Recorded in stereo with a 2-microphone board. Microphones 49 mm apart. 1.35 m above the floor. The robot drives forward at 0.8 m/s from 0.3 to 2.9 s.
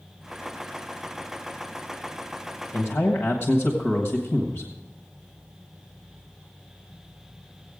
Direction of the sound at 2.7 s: 40° left (ahead or behind).